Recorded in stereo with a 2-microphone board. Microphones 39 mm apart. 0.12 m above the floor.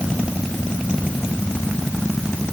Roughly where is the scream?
No scream in this recording.